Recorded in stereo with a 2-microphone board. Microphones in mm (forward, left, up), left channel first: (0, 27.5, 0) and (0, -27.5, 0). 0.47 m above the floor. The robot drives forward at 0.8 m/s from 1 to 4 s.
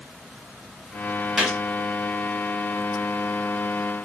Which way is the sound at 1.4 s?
10° right (ahead or behind).